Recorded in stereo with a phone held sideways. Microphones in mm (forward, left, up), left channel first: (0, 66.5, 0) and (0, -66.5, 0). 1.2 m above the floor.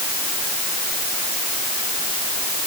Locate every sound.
Only background noise.